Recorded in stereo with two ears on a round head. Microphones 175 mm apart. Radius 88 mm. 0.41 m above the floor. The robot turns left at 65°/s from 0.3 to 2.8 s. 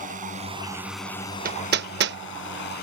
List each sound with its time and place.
0.0 s a drone: 45° right (ahead or behind); by 2.8 s 50° left (ahead or behind)
1.4 s hammering: 45° right (ahead or behind); by 2.2 s 55° right (ahead or behind)